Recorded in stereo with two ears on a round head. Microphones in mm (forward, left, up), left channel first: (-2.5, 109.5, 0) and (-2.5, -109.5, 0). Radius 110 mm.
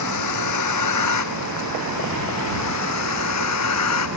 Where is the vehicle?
80° left; by 4.2 s 70° left (ahead or behind).